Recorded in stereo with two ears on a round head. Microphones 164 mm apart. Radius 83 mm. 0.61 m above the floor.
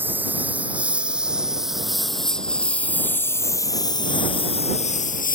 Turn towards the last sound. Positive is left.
turn(degrees=55)  # may be behind; listen again after turning